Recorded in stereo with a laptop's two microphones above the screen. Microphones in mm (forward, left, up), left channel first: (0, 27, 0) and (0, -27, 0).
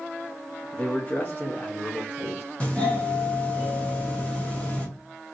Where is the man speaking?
20° left (ahead or behind), 0.6 m; by 2.4 s 40° left (ahead or behind), 2.0 m.